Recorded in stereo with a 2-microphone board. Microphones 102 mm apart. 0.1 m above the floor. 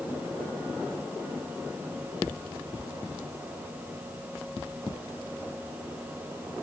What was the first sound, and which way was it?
Only background noise.